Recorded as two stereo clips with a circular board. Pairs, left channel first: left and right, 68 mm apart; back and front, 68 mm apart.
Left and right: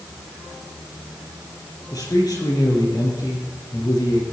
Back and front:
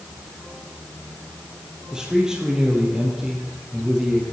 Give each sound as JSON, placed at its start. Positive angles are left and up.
{"t": 1.9, "sound": "a man speaking", "azimuth_deg": 80, "distance_m": 5.0}